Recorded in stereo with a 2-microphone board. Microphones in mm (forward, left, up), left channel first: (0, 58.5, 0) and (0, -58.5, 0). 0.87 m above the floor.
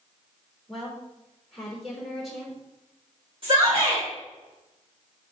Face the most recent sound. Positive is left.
turn(degrees=-45)  # may be behind; listen again after turning